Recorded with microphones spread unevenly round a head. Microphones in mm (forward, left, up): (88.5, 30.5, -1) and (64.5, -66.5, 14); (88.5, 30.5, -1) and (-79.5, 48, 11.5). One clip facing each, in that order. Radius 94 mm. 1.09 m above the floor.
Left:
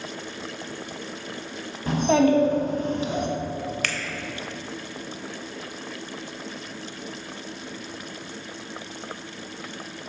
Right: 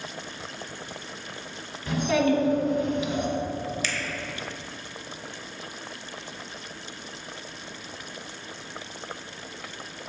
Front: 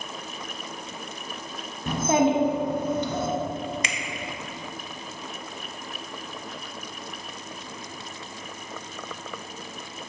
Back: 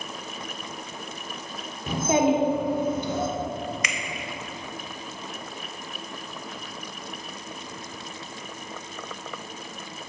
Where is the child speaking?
20° left, 1.2 m.